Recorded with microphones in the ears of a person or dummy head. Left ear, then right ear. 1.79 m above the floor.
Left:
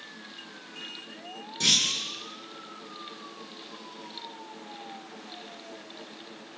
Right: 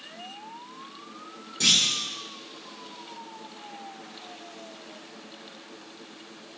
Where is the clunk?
Centre (ahead or behind), 5 m.